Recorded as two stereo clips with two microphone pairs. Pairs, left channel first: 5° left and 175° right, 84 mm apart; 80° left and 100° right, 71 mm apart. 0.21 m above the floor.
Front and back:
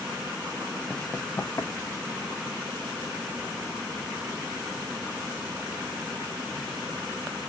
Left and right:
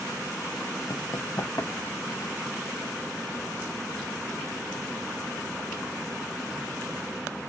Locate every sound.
0.9 s running footsteps: 90° left, 0.5 m; by 2.3 s 45° left, 1.5 m